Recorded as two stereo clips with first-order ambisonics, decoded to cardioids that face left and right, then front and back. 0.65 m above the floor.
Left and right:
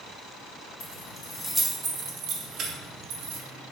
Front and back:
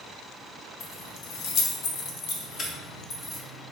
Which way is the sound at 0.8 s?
45° left.